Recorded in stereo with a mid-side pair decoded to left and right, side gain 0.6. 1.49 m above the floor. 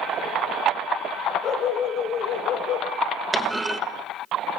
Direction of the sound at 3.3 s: 15° right.